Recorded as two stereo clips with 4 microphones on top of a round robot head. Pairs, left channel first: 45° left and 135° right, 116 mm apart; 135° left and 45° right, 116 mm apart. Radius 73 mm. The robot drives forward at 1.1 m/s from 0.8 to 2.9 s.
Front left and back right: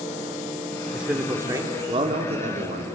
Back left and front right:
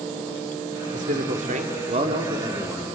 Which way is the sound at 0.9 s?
50° right.